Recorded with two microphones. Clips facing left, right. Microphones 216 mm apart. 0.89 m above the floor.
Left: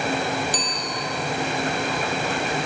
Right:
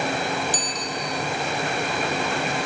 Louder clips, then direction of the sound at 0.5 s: Even; 45° right (ahead or behind).